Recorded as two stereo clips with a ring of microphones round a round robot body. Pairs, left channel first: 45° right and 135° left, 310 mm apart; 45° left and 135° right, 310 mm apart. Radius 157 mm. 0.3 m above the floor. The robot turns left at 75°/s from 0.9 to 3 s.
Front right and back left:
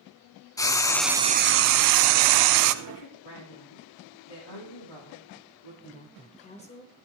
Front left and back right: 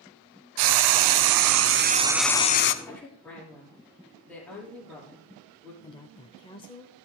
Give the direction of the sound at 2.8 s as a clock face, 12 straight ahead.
1 o'clock.